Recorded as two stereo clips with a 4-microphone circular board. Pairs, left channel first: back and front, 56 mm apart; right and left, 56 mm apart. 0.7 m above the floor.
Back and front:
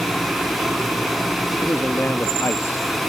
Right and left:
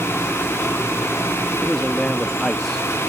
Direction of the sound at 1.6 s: 170° right.